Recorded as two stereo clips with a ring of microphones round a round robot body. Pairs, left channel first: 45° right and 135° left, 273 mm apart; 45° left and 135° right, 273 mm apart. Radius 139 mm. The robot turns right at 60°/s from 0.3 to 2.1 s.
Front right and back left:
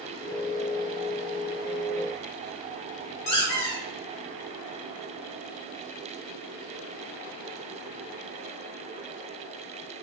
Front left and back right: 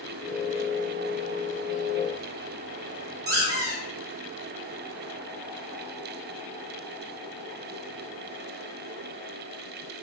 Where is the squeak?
80° right, 1.4 m.